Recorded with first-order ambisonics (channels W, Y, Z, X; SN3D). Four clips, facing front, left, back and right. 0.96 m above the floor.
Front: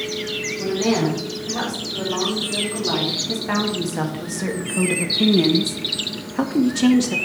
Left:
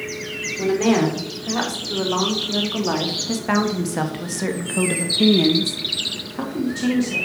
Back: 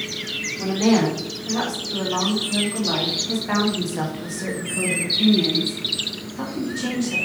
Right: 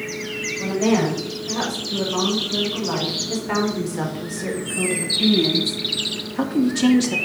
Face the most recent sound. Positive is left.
turn(degrees=-35)